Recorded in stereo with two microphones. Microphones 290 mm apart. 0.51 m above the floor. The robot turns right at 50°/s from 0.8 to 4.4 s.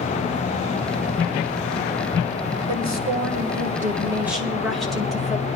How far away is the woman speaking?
About 2.0 m.